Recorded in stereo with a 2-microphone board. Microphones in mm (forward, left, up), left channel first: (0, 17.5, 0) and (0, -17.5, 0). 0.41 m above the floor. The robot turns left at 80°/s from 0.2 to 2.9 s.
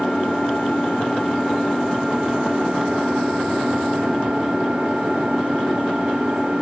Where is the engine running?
135° left, 8.5 m; by 6.6 s 80° right, 8.5 m.